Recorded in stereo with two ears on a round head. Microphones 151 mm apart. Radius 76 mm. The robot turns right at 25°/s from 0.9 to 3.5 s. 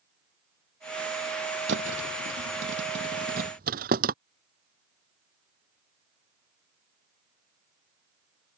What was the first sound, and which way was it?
A thud, 80° right.